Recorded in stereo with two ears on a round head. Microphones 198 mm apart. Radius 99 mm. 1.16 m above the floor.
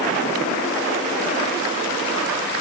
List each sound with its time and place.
Only background noise.